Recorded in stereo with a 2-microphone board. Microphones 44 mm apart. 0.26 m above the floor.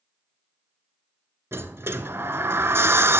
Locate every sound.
1.5 s a sliding door: 70° right (ahead or behind), 0.8 m